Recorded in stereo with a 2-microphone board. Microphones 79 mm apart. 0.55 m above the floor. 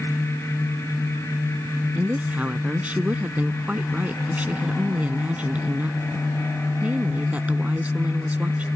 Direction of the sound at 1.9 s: 20° right (ahead or behind).